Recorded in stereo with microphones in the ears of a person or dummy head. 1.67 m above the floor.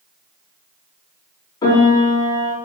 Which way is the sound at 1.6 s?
25° left (ahead or behind).